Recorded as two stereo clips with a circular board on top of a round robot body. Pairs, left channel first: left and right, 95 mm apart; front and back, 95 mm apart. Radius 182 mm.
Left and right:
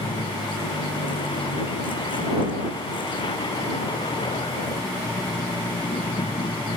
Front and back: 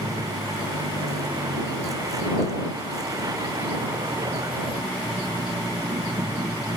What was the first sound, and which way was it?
A vehicle, 125° left.